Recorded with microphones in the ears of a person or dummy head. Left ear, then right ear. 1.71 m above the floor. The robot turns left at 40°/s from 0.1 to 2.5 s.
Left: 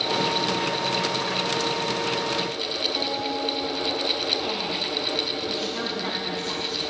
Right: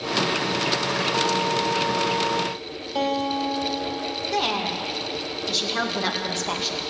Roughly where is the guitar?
Right.